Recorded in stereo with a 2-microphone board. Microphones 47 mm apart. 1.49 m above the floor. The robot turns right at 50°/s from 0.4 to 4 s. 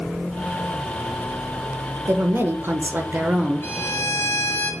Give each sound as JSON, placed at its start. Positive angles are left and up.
{"t": 2.1, "sound": "a woman speaking", "azimuth_deg": -100, "distance_m": 0.7}
{"t": 3.6, "sound": "a violin", "side_deg": 70, "distance_m": 1.8}